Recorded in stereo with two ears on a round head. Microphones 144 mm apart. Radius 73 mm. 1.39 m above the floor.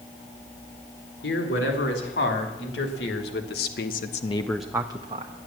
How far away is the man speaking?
About 4 m.